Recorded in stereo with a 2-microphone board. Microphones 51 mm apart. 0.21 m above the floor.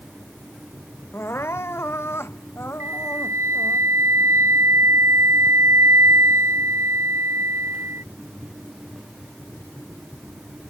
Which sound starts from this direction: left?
Crying, at 1.1 s.